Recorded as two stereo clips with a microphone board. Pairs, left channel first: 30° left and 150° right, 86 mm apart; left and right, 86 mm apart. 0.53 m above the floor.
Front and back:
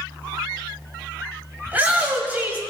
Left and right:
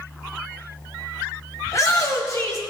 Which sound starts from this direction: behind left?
A shout, at 1.7 s.